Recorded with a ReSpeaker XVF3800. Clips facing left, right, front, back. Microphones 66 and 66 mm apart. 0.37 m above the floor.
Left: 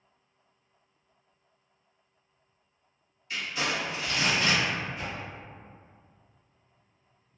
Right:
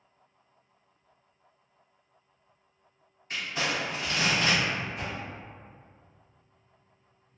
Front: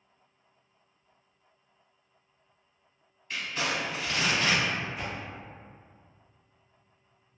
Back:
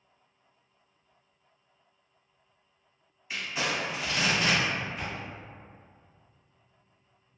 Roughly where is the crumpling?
Right.